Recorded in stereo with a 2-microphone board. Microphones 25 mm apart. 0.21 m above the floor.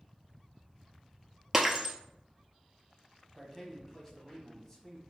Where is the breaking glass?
10° right (ahead or behind), 0.7 m.